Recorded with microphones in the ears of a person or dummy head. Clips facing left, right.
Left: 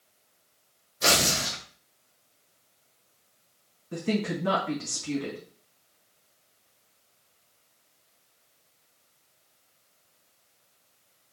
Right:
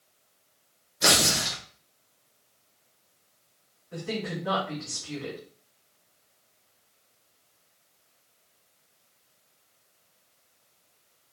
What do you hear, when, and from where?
1.0 s tearing paper: 20° right (ahead or behind), 1.8 m
3.9 s a woman speaking: 55° left (ahead or behind), 1.8 m